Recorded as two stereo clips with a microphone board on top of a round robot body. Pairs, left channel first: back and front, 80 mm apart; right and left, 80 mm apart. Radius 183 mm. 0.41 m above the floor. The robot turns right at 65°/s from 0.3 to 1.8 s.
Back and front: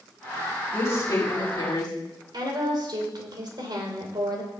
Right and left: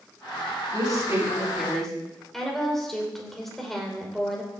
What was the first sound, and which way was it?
A woman speaking, 120° left.